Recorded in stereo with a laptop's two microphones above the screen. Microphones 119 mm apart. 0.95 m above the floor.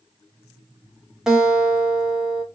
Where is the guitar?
5° right (ahead or behind), 0.8 m.